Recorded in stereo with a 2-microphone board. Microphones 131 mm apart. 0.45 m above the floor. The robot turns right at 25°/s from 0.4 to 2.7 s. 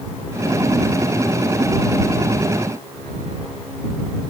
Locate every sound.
Only background noise.